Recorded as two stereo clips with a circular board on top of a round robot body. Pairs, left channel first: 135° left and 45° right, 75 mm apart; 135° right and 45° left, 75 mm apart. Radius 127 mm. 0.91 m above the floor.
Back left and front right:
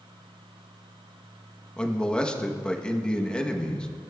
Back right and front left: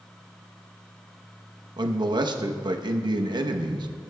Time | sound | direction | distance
1.8 | a man speaking | 60° left | 1.0 m